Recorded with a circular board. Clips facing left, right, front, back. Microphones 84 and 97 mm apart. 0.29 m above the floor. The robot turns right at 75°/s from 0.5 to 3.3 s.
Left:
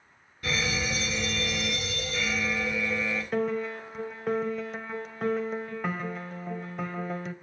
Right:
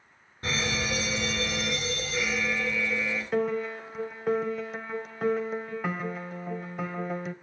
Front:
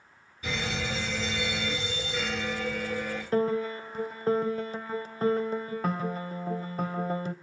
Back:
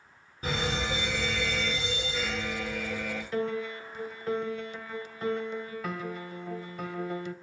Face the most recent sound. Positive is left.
turn(degrees=-5)